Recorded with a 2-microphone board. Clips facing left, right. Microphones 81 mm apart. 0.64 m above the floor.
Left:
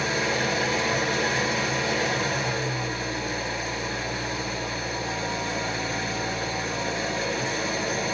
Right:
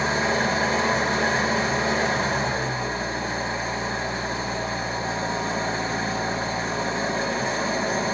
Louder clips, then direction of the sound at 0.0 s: Right 3 dB; 30° right (ahead or behind).